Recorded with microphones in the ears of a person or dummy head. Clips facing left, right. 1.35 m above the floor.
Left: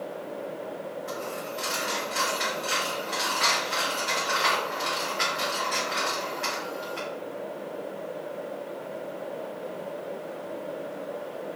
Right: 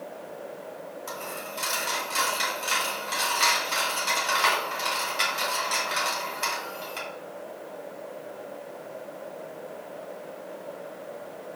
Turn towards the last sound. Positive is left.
turn(degrees=-55)  # may be behind; listen again after turning